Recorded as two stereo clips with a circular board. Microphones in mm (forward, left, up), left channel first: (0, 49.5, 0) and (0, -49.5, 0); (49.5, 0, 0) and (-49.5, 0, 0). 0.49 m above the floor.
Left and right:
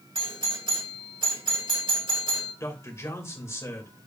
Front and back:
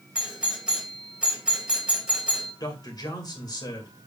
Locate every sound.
0.1 s a doorbell: 100° right, 3 m
2.6 s a man speaking: 35° left, 2.5 m